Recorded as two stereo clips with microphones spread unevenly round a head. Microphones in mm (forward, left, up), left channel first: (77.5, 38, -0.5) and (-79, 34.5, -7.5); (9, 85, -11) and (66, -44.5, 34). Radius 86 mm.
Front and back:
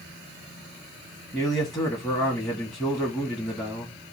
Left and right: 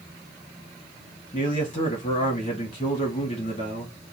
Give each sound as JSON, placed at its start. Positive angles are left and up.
{"t": 1.3, "sound": "a man speaking", "azimuth_deg": 70, "distance_m": 2.0}